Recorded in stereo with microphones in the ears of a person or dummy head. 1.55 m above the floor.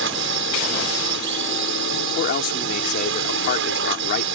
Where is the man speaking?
45° left (ahead or behind).